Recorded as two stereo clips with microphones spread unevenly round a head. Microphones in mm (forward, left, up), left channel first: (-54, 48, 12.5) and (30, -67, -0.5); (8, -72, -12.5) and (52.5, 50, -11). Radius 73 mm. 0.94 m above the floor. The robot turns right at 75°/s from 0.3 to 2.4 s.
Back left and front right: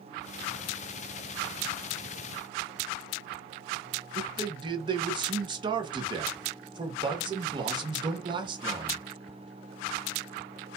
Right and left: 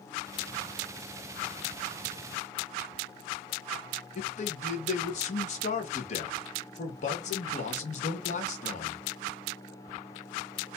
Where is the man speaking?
100° right, 1.0 m.